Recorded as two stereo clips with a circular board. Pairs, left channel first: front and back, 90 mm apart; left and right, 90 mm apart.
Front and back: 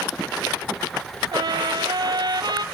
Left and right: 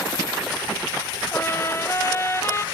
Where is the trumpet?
145° left, 0.6 m.